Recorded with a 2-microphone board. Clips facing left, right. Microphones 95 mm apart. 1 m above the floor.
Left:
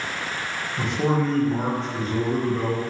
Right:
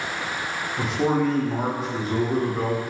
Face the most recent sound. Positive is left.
turn(degrees=-5)  # may be behind; listen again after turning